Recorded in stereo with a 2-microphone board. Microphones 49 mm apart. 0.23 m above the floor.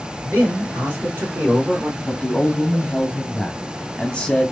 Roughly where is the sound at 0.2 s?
Right.